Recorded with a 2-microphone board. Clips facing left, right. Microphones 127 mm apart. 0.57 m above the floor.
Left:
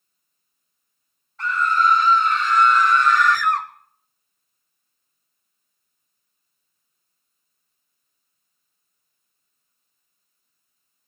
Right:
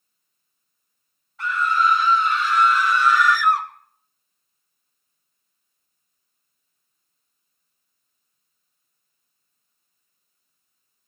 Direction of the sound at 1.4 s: 5° right (ahead or behind).